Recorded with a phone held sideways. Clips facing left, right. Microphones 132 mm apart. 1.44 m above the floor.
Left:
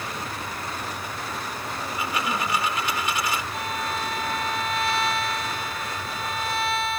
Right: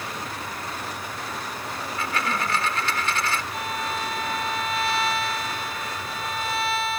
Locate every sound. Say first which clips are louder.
1.8 s a dropped coin: even; 15° left (ahead or behind)
3.5 s a violin: even; centre (ahead or behind)